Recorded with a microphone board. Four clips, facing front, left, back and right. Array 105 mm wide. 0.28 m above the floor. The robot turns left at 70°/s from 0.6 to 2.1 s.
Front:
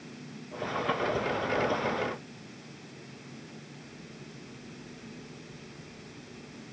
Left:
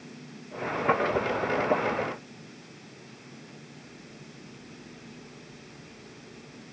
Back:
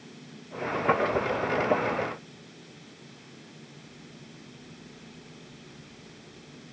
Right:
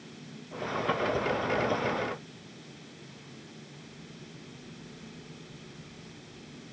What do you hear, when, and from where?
Only background noise.